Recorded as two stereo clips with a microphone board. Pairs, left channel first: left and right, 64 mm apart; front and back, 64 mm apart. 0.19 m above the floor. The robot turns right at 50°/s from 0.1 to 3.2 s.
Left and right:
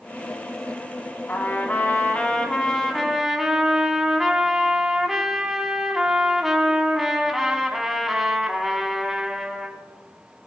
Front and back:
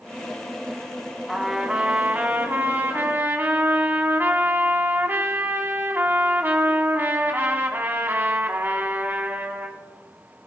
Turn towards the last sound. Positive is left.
turn(degrees=-170)